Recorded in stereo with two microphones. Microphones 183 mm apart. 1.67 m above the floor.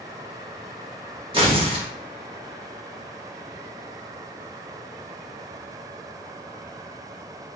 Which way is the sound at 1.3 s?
30° right (ahead or behind).